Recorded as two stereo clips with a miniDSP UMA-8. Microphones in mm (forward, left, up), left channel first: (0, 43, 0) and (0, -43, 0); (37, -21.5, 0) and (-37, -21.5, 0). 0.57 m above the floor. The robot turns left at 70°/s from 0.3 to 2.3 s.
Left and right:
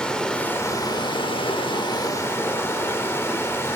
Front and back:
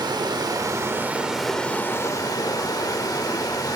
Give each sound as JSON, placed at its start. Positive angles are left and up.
{"t": 0.0, "sound": "running water", "azimuth_deg": 170, "distance_m": 0.8}